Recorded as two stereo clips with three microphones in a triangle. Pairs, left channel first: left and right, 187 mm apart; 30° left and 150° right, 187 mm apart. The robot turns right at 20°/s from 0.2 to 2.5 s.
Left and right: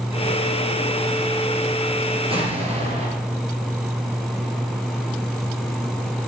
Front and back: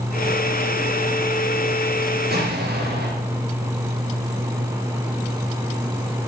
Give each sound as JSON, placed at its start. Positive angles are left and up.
{"t": 2.3, "sound": "an explosion", "azimuth_deg": -145, "distance_m": 4.0}